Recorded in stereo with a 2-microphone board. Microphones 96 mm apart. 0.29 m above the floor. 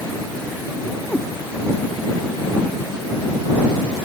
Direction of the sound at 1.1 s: 20° left (ahead or behind).